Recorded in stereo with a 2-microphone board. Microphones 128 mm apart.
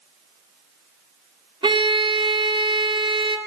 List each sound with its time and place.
1.6 s a violin: 40° right (ahead or behind), 1.0 m